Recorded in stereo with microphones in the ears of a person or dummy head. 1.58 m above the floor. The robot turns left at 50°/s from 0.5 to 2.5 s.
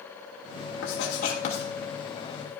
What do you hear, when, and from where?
0.8 s writing: 70° left (ahead or behind), 3 m; by 1.7 s 30° left (ahead or behind), 3 m